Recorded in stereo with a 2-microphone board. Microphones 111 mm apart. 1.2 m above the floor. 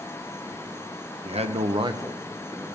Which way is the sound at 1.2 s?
65° right (ahead or behind).